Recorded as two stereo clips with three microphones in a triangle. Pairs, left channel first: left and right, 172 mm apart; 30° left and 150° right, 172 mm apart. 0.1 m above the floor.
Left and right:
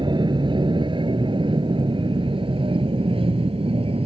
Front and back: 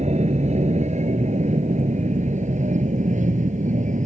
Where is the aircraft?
140° right; by 4.1 s 135° right.